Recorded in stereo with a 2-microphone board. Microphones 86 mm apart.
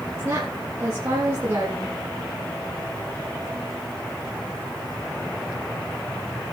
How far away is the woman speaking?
About 5.5 m.